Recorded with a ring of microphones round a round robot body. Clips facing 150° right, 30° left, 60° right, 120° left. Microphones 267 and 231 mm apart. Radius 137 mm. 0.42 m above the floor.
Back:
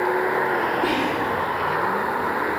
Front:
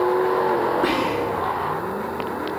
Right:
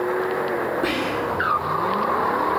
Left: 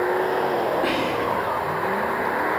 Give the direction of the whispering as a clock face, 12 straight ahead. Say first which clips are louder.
Front 1 dB, even; 1 o'clock.